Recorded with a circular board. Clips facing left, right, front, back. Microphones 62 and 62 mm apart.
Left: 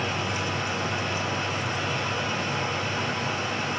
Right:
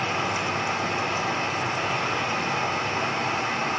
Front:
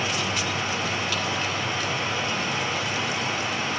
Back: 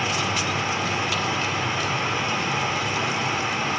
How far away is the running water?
About 5 m.